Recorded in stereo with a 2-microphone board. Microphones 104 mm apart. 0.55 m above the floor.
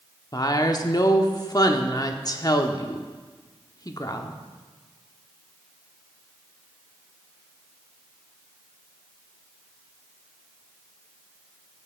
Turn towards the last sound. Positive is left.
turn(degrees=40)  # may be behind; listen again after turning